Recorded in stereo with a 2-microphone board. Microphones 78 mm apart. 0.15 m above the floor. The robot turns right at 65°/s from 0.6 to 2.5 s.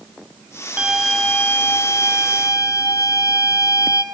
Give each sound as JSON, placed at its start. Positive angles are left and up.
{"t": 0.8, "sound": "a violin", "azimuth_deg": -20, "distance_m": 0.7}